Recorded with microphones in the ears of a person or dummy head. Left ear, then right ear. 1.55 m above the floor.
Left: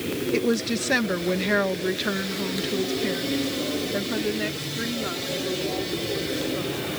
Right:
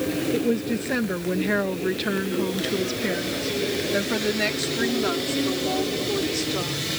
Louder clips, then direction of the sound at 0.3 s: Left 4 dB; 50° left (ahead or behind).